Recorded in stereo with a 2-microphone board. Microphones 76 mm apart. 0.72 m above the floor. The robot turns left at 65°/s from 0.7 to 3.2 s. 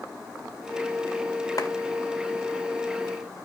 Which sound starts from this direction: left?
A clap, at 1.6 s.